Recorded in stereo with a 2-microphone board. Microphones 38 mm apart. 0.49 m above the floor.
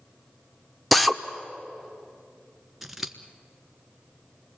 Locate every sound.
0.9 s a drill: centre (ahead or behind), 1.0 m
2.8 s scissors: 10° right (ahead or behind), 1.3 m